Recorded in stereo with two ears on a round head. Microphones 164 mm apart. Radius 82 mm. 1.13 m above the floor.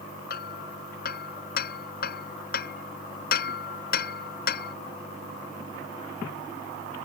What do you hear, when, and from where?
0.3 s hammering: 55° left (ahead or behind)